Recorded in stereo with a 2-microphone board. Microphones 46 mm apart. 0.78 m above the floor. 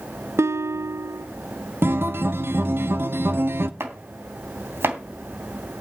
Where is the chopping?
60° right (ahead or behind), 3 m.